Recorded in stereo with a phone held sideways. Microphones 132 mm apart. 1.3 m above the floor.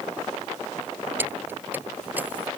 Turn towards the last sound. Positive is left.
turn(degrees=-15)  # may be behind; listen again after turning